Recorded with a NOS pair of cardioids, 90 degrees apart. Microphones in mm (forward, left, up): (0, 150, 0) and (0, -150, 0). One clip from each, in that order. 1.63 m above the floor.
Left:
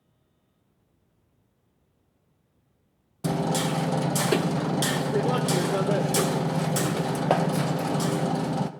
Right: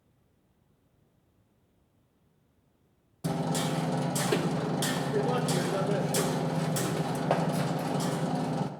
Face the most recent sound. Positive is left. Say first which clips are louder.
# left 5 dB
turn(degrees=25)